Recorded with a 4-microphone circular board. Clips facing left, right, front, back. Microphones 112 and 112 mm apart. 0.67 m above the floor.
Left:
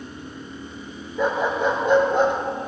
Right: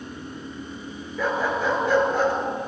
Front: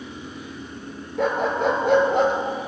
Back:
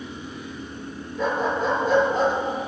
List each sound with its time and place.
1.2 s a dog barking: 20° left, 2.5 m